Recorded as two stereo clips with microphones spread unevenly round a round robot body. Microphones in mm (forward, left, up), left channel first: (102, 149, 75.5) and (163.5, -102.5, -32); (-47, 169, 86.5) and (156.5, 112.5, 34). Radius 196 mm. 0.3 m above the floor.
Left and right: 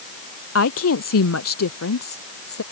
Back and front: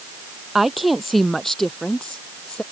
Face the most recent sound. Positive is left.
turn(degrees=80)